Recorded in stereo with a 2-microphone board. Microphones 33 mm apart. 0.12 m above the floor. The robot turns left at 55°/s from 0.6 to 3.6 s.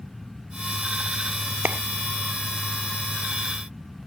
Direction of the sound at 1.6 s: 65° right (ahead or behind).